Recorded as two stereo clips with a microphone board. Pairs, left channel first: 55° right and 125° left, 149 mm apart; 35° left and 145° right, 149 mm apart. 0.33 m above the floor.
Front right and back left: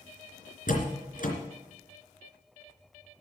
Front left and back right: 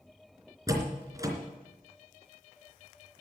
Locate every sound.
0.7 s a door slam: 80° right, 3 m